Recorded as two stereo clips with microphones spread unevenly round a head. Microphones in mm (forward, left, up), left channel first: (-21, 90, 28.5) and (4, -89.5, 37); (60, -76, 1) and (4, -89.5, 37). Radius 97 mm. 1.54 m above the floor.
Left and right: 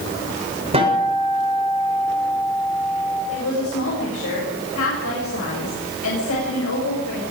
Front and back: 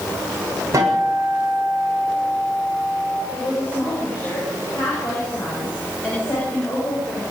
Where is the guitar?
140° right, 8 m.